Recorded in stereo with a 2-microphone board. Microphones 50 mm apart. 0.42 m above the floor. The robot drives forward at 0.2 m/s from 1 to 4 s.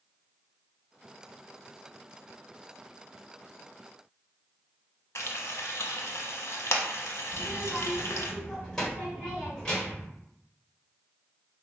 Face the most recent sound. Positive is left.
turn(degrees=15)  # may be behind; listen again after turning